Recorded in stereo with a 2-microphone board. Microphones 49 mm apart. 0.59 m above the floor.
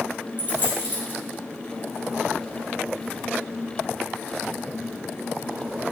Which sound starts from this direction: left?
A dropped coin, at 0.4 s.